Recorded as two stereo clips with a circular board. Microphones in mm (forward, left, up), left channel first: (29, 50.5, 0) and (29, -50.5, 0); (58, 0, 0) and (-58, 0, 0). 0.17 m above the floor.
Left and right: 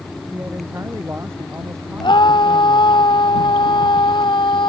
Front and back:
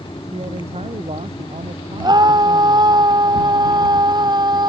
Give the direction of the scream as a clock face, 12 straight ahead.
8 o'clock.